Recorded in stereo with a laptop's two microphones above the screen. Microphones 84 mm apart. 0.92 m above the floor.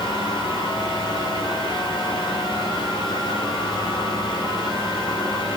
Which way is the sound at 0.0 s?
70° left (ahead or behind).